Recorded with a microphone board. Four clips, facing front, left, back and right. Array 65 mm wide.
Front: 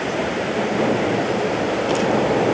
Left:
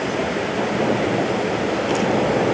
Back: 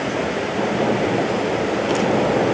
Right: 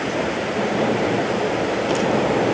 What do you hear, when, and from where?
Only background noise.